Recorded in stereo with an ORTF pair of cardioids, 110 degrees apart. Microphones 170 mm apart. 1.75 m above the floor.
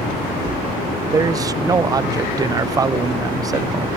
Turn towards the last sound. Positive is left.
turn(degrees=-20)